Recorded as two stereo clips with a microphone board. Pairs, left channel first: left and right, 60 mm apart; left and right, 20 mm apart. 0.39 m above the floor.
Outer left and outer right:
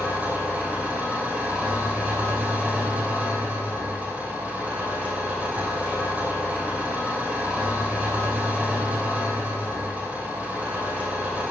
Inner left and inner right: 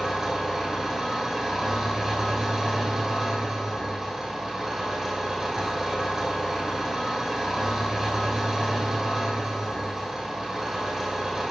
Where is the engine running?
25° right (ahead or behind), 4 m.